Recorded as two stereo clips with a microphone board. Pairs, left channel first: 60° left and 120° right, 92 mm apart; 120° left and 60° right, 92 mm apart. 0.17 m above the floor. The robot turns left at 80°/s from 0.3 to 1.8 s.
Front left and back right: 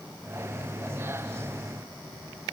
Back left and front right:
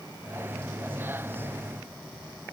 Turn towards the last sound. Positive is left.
No sound to turn to.